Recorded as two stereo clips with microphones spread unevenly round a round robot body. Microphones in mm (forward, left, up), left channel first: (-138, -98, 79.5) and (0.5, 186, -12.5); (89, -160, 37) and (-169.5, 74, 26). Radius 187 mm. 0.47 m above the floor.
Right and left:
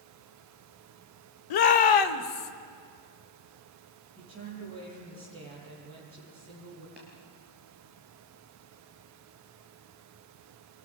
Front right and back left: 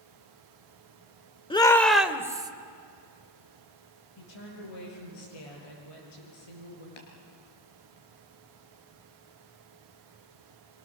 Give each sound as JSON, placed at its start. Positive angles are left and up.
{"t": 1.5, "sound": "a shout", "azimuth_deg": -120, "distance_m": 1.4}
{"t": 4.2, "sound": "a woman speaking", "azimuth_deg": -15, "distance_m": 9.5}
{"t": 7.0, "sound": "tapping", "azimuth_deg": -25, "distance_m": 4.5}